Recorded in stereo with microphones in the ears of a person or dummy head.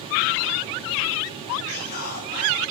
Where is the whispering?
50° left (ahead or behind), 3 m.